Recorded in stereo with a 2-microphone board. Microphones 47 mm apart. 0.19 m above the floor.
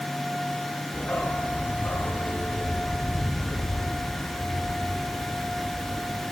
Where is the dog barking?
35° left (ahead or behind), 2 m; by 6.2 s 65° left (ahead or behind), 6 m.